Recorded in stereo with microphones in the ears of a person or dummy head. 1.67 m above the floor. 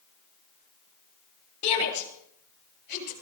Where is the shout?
65° left (ahead or behind), 9 m; by 3.1 s 60° left (ahead or behind), 10 m.